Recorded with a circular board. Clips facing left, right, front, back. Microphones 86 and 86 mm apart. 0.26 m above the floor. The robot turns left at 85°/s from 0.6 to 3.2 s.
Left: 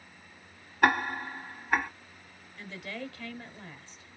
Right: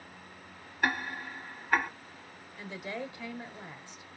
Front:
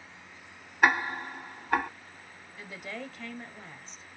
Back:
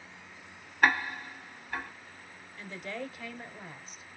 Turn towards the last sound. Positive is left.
turn(degrees=-105)